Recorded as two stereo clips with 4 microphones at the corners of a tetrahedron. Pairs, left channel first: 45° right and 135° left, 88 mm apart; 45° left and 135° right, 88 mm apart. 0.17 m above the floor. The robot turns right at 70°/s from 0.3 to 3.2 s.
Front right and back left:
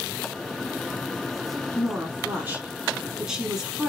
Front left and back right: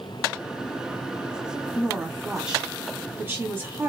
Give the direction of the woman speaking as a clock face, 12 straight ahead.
8 o'clock.